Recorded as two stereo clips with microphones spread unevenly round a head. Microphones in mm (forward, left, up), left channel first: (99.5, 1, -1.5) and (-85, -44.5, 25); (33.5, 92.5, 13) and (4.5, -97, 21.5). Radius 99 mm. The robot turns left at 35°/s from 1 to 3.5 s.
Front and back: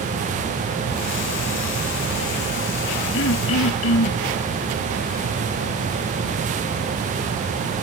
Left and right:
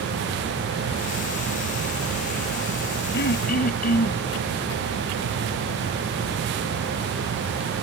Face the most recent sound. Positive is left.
turn(degrees=35)